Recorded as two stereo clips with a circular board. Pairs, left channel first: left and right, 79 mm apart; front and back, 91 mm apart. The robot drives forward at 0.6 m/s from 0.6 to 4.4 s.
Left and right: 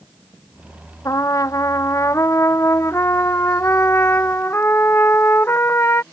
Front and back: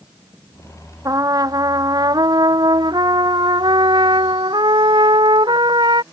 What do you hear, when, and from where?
1.1 s a trumpet: 135° left; by 6.0 s 150° left